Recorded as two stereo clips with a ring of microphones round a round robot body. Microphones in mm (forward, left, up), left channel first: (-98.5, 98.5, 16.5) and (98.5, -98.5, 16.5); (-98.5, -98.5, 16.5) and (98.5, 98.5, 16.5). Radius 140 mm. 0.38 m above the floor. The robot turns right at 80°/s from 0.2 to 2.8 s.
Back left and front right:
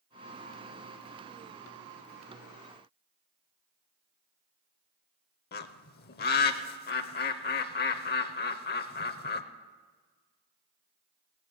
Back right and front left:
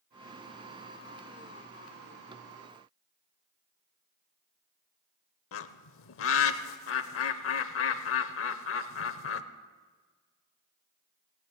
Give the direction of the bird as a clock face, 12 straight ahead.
6 o'clock.